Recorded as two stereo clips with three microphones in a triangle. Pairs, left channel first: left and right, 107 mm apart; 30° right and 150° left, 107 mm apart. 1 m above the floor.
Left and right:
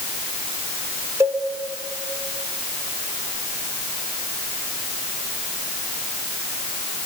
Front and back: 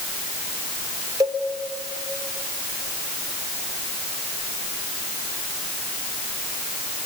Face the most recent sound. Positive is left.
turn(degrees=-155)